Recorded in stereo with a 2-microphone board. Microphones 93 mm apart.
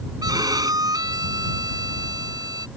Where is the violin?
45° right (ahead or behind).